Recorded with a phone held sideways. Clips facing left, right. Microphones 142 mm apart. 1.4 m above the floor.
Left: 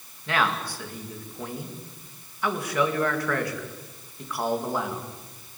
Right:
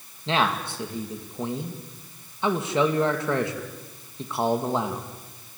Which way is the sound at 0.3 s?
25° right (ahead or behind).